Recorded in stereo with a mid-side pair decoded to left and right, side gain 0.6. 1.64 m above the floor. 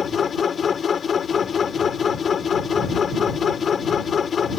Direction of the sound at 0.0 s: 35° left.